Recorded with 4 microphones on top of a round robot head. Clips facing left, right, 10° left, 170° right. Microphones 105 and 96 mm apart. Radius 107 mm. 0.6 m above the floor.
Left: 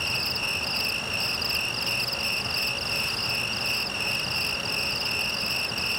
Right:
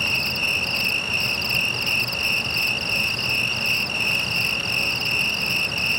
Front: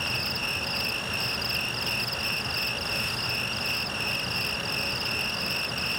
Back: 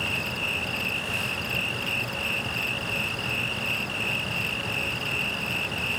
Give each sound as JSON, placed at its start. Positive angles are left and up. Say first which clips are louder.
{"t": 0.0, "sound": "an insect", "louder": "right 4 dB, back 2 dB", "azimuth_deg": -60}